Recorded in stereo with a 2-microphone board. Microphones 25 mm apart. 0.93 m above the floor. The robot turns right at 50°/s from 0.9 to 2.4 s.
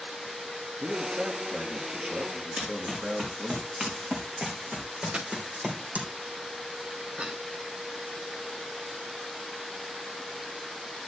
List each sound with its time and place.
0.8 s a man speaking: 105° right, 1.2 m; by 3.6 s 30° right, 1.2 m
2.6 s running footsteps: 30° right (ahead or behind), 4.5 m; by 6.1 s 65° right (ahead or behind), 2.5 m
5.1 s a dropped coin: 35° right (ahead or behind), 0.9 m
7.2 s a cough: 50° right (ahead or behind), 2.5 m